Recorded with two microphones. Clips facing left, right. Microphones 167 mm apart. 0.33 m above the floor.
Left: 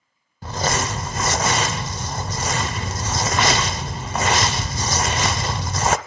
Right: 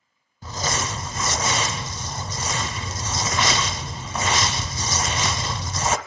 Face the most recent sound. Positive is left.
turn(degrees=60)  # may be behind; listen again after turning